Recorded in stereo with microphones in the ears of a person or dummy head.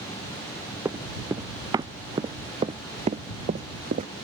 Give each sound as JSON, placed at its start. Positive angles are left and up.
{"t": 0.8, "sound": "running footsteps", "side_deg": -10}